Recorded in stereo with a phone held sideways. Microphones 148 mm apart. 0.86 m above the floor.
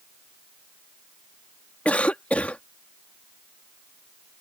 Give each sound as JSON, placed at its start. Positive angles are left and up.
{"t": 1.9, "sound": "a cough", "side_deg": 10}